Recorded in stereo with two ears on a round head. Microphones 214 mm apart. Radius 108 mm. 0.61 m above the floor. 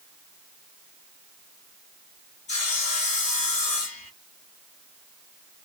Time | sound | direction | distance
2.5 | sawing | 30° left (ahead or behind) | 1.3 m